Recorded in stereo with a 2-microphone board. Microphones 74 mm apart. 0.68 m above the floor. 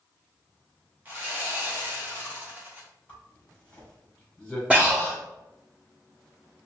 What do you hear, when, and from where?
1.1 s sawing: 25° right (ahead or behind), 0.9 m
3.1 s a zipper: 15° left (ahead or behind), 1.4 m
4.7 s breathing: 15° right (ahead or behind), 1.1 m